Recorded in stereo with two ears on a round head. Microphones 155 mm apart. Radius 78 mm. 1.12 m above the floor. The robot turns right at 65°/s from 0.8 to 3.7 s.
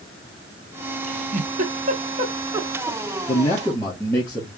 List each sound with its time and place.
1.0 s a giggle: 35° right (ahead or behind), 0.8 m; by 3.2 s 10° left (ahead or behind), 0.8 m
3.3 s a man speaking: 45° left (ahead or behind), 2.5 m; by 4.5 s 20° left (ahead or behind), 2.5 m